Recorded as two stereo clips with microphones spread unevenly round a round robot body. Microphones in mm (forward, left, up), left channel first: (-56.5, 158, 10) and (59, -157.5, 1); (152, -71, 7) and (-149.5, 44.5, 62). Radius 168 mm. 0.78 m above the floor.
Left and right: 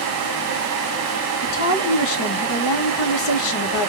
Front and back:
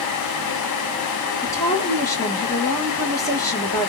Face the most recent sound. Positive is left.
turn(degrees=60)